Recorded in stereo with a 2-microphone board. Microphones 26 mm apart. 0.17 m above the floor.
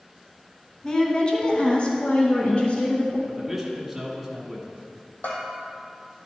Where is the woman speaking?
25° left (ahead or behind), 1.3 m; by 3.2 s 40° left (ahead or behind), 1.9 m.